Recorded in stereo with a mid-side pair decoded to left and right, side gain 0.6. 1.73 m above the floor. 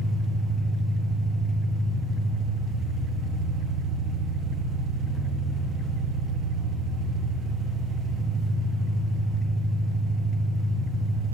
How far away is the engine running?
About 1.4 m.